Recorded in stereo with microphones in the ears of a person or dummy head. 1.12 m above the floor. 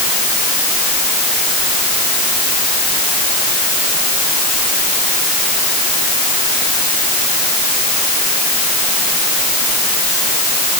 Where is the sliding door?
I don't hear a sliding door.